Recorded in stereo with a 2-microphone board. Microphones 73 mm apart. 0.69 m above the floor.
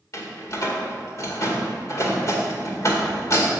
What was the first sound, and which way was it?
A door slam, 45° left (ahead or behind).